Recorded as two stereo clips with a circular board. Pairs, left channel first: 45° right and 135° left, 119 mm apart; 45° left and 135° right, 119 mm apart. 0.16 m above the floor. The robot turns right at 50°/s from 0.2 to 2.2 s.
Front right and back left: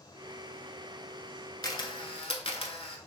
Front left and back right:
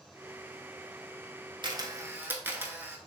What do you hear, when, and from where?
1.6 s a camera shutter: 95° right, 0.5 m; by 3.0 s 65° right, 0.5 m